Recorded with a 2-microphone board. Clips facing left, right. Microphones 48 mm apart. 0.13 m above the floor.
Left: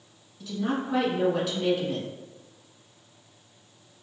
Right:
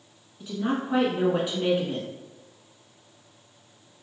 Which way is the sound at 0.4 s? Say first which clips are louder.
Right 1 dB; 20° right (ahead or behind).